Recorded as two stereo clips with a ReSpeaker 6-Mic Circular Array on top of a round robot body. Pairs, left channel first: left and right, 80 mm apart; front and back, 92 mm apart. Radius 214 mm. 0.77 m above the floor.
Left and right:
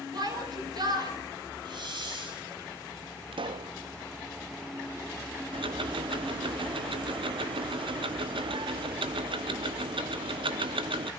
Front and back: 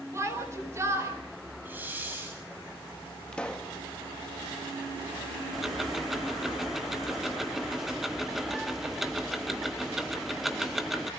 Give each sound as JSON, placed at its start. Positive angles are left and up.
{"t": 0.1, "sound": "a shout", "azimuth_deg": -120, "distance_m": 4.5}
{"t": 1.6, "sound": "a hiss", "azimuth_deg": -110, "distance_m": 6.0}
{"t": 3.3, "sound": "a pop", "azimuth_deg": -80, "distance_m": 0.5}
{"t": 5.5, "sound": "ticking", "azimuth_deg": -90, "distance_m": 0.9}